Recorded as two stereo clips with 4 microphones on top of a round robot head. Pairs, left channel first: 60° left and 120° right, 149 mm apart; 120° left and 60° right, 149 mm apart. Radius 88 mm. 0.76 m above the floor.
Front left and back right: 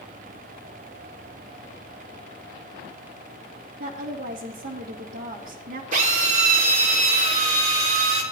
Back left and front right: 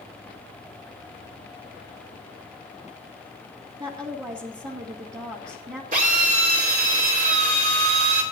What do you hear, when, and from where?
3.8 s a woman speaking: 120° right, 1.6 m
5.9 s a drill: 85° right, 3.5 m